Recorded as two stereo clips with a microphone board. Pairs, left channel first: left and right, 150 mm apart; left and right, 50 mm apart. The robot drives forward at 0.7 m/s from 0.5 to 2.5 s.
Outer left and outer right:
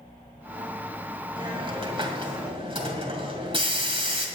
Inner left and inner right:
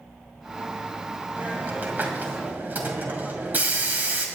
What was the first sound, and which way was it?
A hiss, 35° right (ahead or behind).